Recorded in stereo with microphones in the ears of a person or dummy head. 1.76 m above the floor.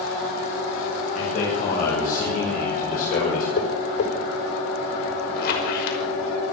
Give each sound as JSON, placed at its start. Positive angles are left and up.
{"t": 1.1, "sound": "a man speaking", "side_deg": 50, "distance_m": 9.0}
{"t": 3.6, "sound": "tapping", "side_deg": 70, "distance_m": 5.5}
{"t": 5.4, "sound": "a squeak", "side_deg": 55, "distance_m": 5.5}